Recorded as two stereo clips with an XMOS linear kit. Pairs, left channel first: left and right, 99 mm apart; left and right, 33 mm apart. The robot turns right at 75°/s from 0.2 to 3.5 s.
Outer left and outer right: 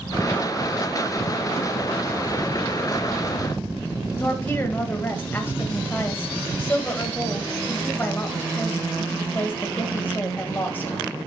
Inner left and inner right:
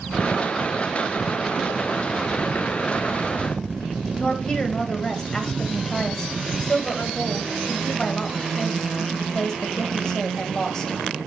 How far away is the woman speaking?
About 1.9 m.